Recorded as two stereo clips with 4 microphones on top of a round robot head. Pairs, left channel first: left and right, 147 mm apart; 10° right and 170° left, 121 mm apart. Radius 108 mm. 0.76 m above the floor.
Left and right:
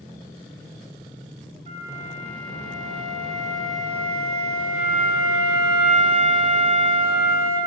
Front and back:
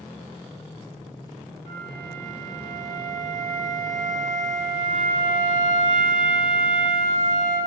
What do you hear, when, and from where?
1.7 s a flute: 135° right, 1.3 m